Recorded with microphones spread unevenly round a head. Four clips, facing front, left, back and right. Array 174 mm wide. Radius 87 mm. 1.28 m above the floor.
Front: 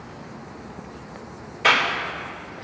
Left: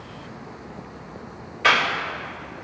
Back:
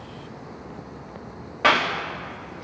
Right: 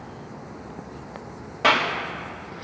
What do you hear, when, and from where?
1.6 s a clap: 140° right, 1.7 m